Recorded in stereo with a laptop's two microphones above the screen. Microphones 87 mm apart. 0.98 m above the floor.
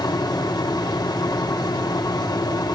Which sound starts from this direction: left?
A fan, at 0.0 s.